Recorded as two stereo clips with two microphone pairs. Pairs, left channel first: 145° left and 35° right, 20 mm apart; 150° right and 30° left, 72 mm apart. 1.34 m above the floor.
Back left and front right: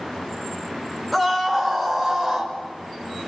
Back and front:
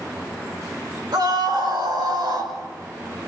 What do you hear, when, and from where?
1.1 s a scream: 50° left, 6 m; by 2.5 s 35° left, 7 m